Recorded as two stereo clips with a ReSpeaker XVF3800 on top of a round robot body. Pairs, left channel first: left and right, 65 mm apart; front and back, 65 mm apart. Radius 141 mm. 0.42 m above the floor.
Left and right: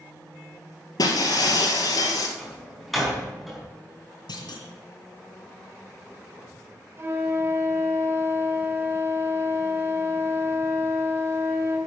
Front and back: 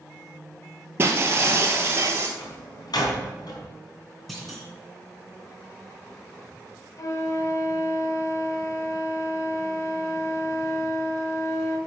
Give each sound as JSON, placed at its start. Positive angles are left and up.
{"t": 1.0, "sound": "breaking glass", "azimuth_deg": 120, "distance_m": 1.9}
{"t": 2.4, "sound": "a door slam", "azimuth_deg": 0, "distance_m": 4.5}
{"t": 4.3, "sound": "a clunk", "azimuth_deg": 90, "distance_m": 2.5}
{"t": 7.0, "sound": "a flute", "azimuth_deg": -35, "distance_m": 2.5}